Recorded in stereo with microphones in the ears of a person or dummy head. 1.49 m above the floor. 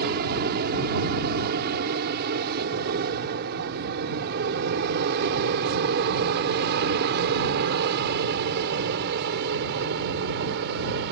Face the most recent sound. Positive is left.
turn(degrees=-60)  # may be behind; listen again after turning